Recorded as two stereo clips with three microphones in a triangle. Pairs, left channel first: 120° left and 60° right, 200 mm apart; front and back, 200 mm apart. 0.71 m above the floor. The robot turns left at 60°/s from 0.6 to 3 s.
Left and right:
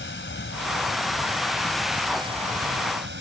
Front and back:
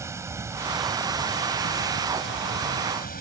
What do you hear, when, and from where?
0.0 s running water: 105° left; by 3.2 s 40° right